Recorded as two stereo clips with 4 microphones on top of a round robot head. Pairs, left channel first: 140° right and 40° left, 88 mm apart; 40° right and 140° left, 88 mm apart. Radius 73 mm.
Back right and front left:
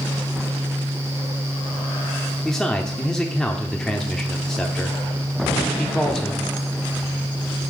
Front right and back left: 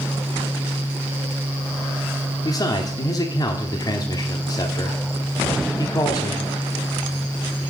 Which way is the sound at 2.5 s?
60° right.